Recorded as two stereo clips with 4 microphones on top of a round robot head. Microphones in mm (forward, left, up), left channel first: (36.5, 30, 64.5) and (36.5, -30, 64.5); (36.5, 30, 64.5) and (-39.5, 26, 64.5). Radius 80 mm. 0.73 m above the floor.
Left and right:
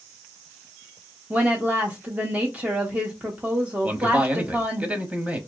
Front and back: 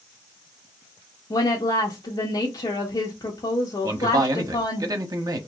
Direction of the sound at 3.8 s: 155° right.